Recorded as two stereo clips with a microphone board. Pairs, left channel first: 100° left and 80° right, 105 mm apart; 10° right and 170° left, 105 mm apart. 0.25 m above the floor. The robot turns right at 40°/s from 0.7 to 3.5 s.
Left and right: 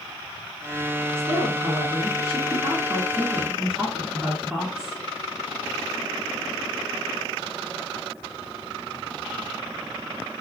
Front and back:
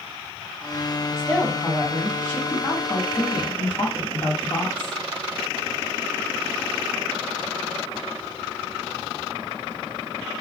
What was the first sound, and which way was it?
A woman speaking, 105° right.